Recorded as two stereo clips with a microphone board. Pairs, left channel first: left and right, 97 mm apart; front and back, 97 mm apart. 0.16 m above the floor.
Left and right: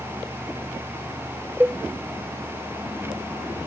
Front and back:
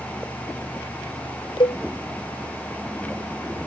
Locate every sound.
1.6 s a cowbell: 20° right